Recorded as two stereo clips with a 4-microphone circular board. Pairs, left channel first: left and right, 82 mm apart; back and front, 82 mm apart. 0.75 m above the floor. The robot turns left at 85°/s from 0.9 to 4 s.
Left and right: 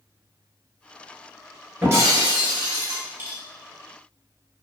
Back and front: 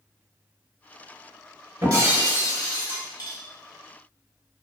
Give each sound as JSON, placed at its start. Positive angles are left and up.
{"t": 1.8, "sound": "breaking glass", "azimuth_deg": -35, "distance_m": 1.2}